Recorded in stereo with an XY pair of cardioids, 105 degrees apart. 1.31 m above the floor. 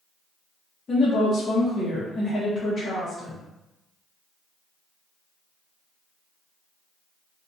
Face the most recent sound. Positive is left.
turn(degrees=35)